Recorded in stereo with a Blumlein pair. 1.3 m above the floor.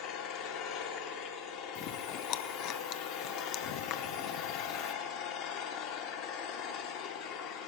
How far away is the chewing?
About 0.6 m.